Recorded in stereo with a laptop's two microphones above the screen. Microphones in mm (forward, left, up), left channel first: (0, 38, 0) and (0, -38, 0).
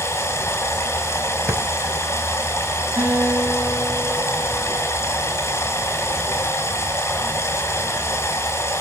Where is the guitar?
25° right (ahead or behind), 5 m.